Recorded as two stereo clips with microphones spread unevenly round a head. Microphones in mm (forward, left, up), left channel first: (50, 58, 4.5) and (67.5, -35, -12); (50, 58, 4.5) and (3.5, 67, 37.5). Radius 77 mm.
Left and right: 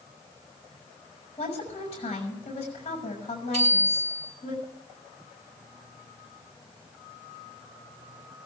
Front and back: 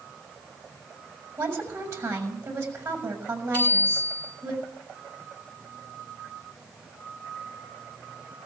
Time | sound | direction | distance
1.4 | a woman speaking | 150° left | 6.5 m
3.5 | a bicycle bell | 115° right | 9.5 m